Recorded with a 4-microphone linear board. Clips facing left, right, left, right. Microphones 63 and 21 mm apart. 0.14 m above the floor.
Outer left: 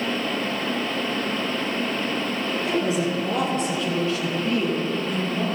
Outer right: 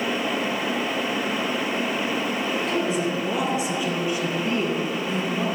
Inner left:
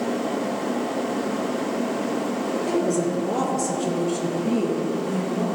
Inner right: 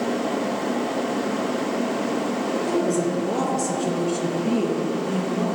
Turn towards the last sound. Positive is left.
turn(degrees=-40)  # may be behind; listen again after turning